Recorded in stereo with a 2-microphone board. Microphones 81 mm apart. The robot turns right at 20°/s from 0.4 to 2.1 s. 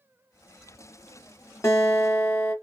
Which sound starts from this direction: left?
A guitar, at 1.6 s.